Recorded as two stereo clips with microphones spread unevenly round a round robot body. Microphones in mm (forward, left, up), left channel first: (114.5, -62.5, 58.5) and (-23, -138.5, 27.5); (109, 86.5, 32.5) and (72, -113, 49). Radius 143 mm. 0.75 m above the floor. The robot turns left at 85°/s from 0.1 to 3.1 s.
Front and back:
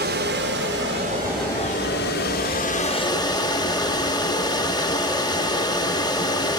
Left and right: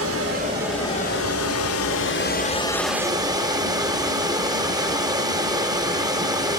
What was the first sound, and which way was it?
Running water, 135° right.